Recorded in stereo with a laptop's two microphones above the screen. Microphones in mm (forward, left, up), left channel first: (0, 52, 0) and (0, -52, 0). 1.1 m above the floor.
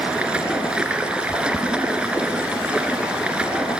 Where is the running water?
10° right (ahead or behind), 3 m.